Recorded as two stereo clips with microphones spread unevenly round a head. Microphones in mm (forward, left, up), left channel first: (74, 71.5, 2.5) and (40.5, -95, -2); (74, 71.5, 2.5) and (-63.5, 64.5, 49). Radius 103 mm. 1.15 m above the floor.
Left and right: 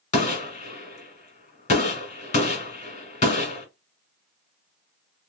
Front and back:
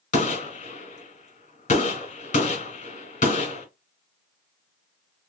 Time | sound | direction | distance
0.1 | a gunshot | 40° left | 1.7 m